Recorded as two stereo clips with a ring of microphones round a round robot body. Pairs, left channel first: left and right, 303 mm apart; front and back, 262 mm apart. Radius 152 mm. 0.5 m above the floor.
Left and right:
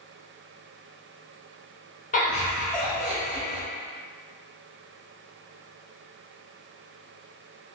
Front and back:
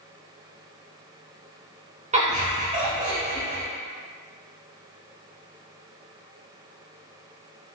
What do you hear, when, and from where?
2.1 s laughter: 140° left, 1.1 m